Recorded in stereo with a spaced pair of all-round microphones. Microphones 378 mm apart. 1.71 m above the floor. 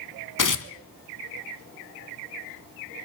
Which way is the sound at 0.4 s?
55° left (ahead or behind).